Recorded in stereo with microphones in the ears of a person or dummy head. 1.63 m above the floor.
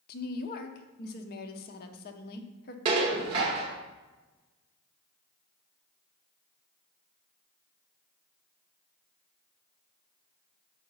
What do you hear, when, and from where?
0.1 s a woman speaking: 45° left (ahead or behind), 0.8 m
2.9 s dishes clattering: 30° right (ahead or behind), 1.0 m